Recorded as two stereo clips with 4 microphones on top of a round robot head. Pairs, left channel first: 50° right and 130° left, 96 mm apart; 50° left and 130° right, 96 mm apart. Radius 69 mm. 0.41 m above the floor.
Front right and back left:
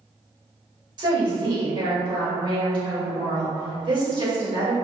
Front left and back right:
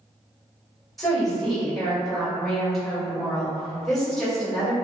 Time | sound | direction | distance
1.0 | a woman speaking | 140° left | 1.8 m